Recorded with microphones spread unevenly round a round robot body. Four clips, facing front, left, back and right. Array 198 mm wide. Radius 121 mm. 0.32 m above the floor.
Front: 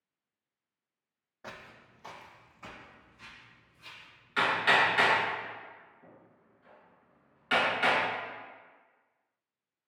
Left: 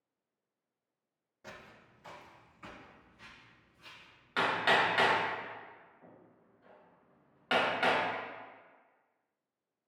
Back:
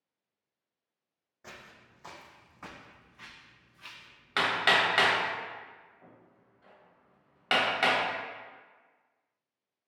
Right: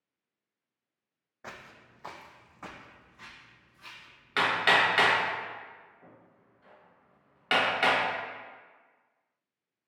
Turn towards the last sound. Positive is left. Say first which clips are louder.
# right 3 dB, front 1 dB
turn(degrees=-170)